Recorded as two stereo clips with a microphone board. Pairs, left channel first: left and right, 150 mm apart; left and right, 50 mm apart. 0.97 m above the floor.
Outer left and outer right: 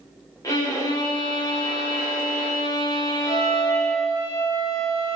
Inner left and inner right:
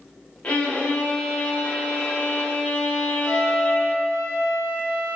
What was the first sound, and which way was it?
A violin, 25° left (ahead or behind).